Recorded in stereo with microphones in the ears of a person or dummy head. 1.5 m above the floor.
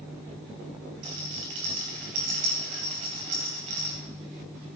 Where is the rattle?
35° right (ahead or behind), 2.5 m.